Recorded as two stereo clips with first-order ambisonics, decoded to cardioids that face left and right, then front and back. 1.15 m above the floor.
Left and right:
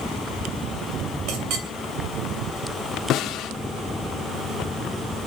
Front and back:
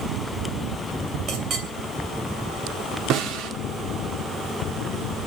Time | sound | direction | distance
1.3 | a clink | 120° right | 2.5 m
3.1 | a snare drum | 140° left | 2 m